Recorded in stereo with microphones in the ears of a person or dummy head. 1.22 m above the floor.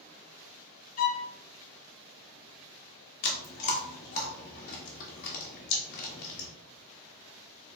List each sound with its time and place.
1.0 s a violin: 45° left (ahead or behind), 0.5 m
3.2 s chewing: 40° left (ahead or behind), 0.7 m